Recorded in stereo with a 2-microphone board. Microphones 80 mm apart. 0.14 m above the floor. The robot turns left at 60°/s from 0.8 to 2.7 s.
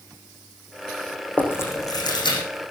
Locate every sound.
1.4 s chewing: 20° left (ahead or behind), 6 m; by 2.4 s 80° left, 6 m